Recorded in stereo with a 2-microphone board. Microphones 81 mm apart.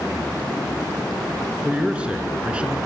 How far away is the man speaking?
About 2.5 m.